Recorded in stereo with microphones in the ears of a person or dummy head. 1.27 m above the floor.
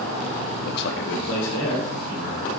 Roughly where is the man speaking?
Left.